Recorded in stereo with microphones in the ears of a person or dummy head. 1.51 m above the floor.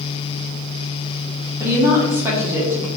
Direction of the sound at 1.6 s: 10° right (ahead or behind).